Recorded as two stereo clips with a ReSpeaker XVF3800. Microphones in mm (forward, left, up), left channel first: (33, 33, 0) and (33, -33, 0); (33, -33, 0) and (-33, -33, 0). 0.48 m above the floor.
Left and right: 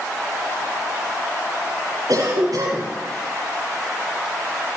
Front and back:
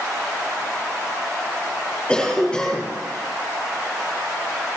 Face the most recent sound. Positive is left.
turn(degrees=-75)